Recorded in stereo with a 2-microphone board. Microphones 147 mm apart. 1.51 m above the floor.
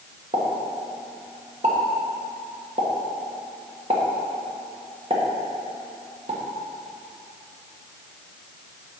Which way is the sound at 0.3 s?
45° right (ahead or behind).